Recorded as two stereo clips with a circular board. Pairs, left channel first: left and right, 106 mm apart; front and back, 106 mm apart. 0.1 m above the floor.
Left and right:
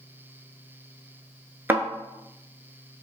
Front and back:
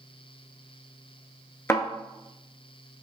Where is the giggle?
I don't hear a giggle.